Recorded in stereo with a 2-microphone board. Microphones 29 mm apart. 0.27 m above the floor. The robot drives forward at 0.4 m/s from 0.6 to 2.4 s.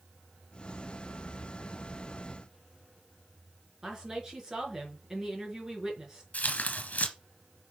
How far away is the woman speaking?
About 4.5 m.